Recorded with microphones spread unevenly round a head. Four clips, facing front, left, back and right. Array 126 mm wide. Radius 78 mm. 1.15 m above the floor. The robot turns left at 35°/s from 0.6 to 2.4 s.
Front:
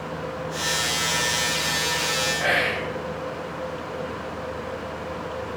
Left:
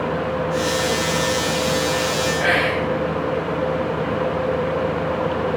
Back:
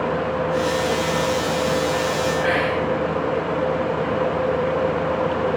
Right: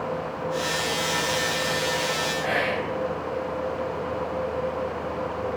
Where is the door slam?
No door slam in this recording.